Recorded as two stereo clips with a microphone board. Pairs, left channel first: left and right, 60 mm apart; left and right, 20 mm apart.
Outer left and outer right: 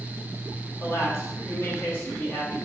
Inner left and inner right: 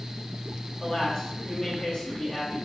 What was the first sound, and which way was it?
A man speaking, 45° left (ahead or behind).